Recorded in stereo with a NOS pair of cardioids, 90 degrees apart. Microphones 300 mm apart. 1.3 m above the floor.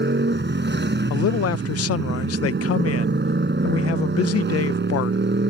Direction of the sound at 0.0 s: 35° right.